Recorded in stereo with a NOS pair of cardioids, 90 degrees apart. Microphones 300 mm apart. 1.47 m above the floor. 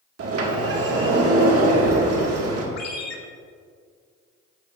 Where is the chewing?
No chewing in this recording.